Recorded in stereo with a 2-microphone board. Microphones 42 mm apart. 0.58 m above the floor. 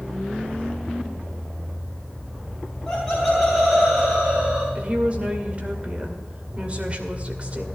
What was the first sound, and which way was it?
Laughter, 10° left (ahead or behind).